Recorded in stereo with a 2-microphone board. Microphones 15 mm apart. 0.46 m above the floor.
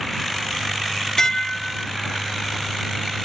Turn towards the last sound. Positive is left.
turn(degrees=30)  # may be behind; listen again after turning